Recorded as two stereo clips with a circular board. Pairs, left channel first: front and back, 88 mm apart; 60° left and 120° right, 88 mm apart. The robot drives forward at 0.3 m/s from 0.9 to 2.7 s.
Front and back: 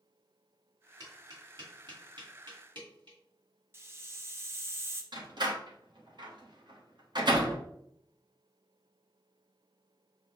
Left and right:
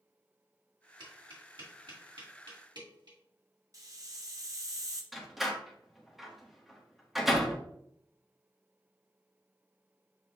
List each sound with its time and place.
1.0 s tapping: 140° right, 1.6 m; by 3.2 s 150° right, 2 m
3.7 s a hiss: 135° right, 0.7 m
5.1 s a door slam: 155° left, 1.1 m